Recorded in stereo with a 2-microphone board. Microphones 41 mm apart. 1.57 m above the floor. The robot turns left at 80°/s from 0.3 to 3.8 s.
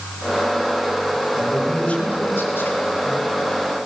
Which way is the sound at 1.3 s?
170° right.